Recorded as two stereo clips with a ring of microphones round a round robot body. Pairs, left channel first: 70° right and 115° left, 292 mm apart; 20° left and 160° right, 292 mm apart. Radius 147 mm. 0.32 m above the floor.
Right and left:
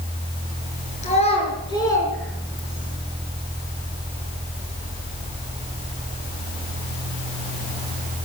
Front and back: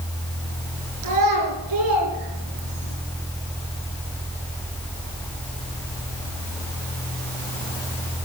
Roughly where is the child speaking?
Behind right.